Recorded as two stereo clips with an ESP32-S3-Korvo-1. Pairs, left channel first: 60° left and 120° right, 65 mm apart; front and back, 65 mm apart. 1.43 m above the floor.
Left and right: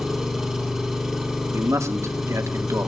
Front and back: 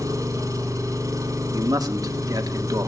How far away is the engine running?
About 5.5 m.